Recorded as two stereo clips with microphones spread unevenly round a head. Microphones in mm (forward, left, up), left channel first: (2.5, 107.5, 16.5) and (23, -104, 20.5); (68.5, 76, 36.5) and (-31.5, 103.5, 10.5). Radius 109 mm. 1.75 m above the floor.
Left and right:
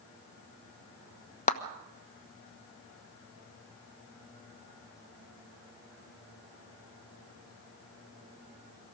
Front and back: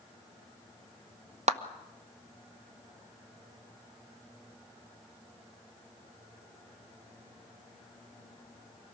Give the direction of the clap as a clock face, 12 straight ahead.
7 o'clock.